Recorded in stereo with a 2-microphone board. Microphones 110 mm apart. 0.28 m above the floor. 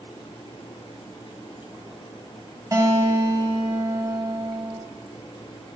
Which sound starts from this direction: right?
A guitar, at 2.7 s.